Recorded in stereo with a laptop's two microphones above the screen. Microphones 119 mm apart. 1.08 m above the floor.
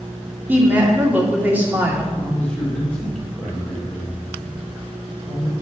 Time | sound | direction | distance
0.5 | a woman speaking | 15° right (ahead or behind) | 2 m
2.1 | a man speaking | 10° left (ahead or behind) | 1.5 m